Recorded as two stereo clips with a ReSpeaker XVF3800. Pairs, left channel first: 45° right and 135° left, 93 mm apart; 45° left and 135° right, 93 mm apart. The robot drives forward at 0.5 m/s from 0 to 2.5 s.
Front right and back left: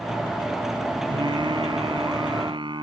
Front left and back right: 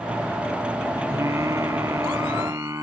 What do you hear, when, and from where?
1.1 s singing: 170° left